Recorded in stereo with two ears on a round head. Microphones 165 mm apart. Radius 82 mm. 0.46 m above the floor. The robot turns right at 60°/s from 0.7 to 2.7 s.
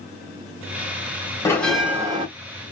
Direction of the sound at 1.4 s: 165° left.